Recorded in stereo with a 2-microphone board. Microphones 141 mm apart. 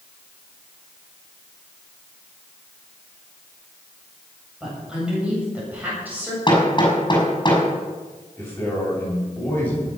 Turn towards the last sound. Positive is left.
turn(degrees=15)  # may be behind; listen again after turning